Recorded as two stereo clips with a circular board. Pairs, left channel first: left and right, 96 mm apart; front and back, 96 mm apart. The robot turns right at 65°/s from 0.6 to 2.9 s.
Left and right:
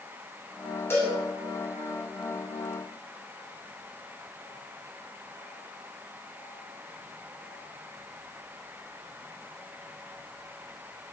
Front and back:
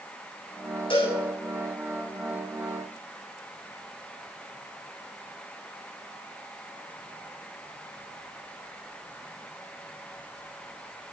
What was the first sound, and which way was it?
A cowbell, 25° left.